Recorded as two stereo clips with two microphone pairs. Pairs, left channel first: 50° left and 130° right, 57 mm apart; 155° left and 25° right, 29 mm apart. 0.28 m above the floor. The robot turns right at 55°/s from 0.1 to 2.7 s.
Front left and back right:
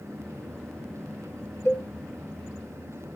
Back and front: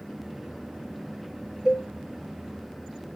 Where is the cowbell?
15° left, 3 m; by 1.9 s 25° left, 3 m.